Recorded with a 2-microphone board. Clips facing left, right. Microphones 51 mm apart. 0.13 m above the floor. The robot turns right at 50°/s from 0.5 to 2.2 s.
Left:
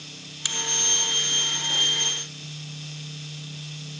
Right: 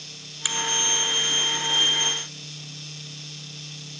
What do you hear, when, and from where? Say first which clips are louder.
0.5 s a finger snap: right 2 dB; 15° right (ahead or behind), 1.0 m